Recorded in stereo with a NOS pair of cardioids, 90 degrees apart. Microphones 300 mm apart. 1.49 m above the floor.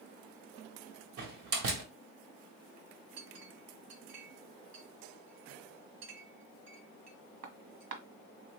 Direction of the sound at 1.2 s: 60° right.